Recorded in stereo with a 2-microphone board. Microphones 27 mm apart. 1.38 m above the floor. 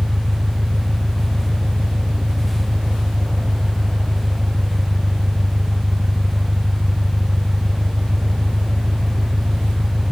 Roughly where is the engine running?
Right.